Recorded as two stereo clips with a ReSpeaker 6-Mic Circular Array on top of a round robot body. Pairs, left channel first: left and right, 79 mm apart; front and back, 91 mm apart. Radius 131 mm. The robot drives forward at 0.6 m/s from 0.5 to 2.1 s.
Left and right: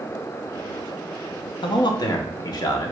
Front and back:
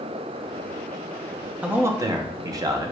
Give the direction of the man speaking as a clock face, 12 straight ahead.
9 o'clock.